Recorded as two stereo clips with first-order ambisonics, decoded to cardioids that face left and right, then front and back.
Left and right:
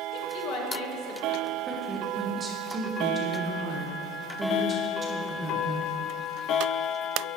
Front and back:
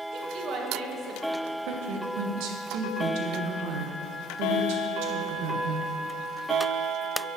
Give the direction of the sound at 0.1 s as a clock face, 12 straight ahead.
8 o'clock.